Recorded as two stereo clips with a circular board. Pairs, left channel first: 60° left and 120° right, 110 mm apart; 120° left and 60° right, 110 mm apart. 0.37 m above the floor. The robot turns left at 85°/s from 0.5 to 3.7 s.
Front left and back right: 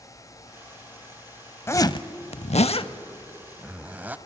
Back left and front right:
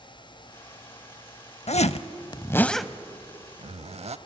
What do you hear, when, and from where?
1.7 s a zipper: 125° left, 0.5 m; by 4.2 s 45° right, 0.5 m